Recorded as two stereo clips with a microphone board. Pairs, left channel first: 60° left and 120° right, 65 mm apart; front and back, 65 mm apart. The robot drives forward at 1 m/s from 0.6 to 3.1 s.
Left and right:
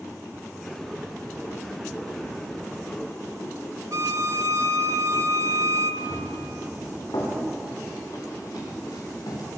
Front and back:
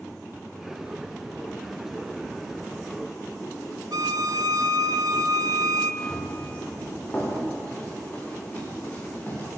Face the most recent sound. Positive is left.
turn(degrees=65)